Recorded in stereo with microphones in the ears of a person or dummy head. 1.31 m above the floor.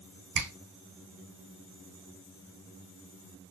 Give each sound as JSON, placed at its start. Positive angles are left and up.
{"t": 0.3, "sound": "a finger snap", "side_deg": -65, "distance_m": 1.7}